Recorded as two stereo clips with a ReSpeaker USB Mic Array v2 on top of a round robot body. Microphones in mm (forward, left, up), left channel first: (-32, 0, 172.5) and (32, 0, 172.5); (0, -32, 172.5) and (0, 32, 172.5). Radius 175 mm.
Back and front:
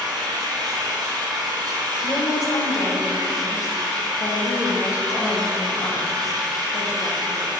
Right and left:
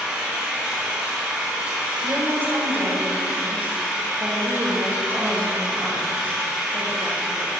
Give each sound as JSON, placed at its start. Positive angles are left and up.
{"t": 0.0, "sound": "an engine running", "azimuth_deg": 10, "distance_m": 1.3}
{"t": 2.0, "sound": "a woman speaking", "azimuth_deg": 150, "distance_m": 2.0}